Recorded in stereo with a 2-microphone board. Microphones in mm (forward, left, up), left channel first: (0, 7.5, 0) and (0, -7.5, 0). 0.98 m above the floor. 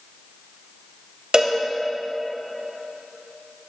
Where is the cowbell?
40° right (ahead or behind), 1.2 m.